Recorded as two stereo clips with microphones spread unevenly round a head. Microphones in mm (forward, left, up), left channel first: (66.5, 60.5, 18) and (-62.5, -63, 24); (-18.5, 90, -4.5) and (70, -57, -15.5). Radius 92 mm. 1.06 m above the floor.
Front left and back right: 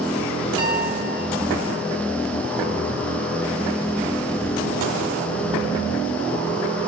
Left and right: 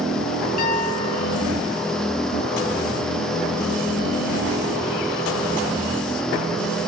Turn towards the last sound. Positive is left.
turn(degrees=160)